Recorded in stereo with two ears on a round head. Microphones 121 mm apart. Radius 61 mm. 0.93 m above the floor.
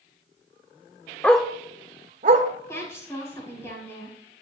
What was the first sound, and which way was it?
A dog barking, 10° left (ahead or behind).